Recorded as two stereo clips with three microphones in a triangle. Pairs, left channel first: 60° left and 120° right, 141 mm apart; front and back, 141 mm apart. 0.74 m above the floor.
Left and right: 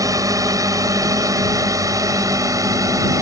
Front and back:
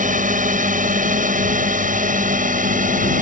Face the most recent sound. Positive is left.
turn(degrees=175)